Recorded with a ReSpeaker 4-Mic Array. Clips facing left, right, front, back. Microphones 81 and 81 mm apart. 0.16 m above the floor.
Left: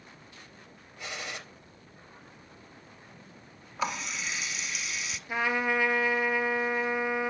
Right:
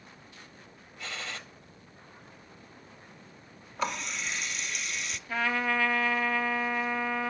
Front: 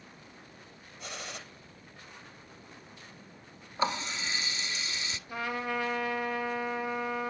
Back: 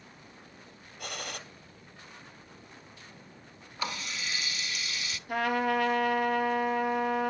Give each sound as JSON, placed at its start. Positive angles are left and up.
{"t": 1.0, "sound": "a gunshot", "azimuth_deg": 160, "distance_m": 3.5}
{"t": 3.8, "sound": "a running tap", "azimuth_deg": 5, "distance_m": 1.0}
{"t": 5.3, "sound": "a trumpet", "azimuth_deg": 160, "distance_m": 1.8}